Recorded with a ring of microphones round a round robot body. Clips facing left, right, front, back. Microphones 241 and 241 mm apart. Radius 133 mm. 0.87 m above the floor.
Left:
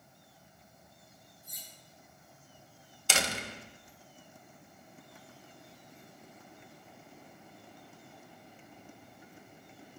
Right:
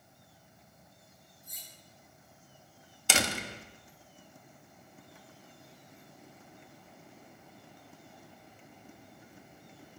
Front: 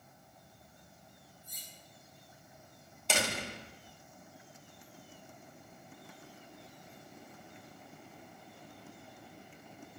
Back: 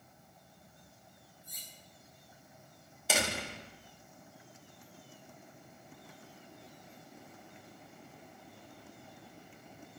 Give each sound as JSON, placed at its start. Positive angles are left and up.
{"t": 1.4, "sound": "cutlery clinking", "azimuth_deg": -85, "distance_m": 5.0}
{"t": 3.1, "sound": "a door slam", "azimuth_deg": -95, "distance_m": 1.0}